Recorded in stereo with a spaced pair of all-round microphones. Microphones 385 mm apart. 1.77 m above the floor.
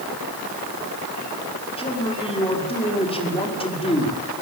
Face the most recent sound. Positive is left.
turn(degrees=15)  # may be behind; listen again after turning